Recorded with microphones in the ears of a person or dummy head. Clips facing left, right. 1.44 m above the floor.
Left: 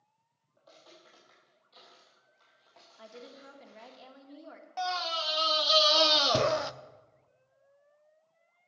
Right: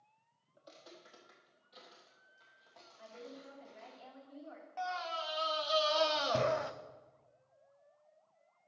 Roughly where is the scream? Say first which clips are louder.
Left 5 dB; left.